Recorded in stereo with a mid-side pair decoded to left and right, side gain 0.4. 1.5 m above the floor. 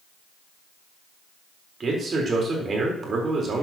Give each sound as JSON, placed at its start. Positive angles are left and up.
{"t": 1.8, "sound": "a man speaking", "azimuth_deg": -50, "distance_m": 4.0}